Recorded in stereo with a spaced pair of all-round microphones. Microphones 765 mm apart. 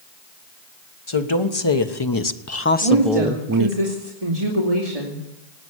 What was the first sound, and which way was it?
A woman speaking, 40° left (ahead or behind).